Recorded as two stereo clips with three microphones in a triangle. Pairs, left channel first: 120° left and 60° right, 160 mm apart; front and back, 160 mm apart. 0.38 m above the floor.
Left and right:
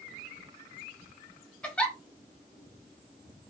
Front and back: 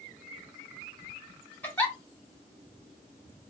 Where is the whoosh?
No whoosh in this recording.